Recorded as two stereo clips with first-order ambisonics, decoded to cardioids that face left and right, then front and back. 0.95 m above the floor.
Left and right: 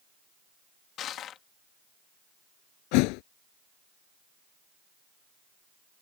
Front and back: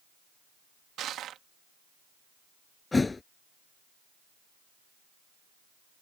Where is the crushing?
135° left.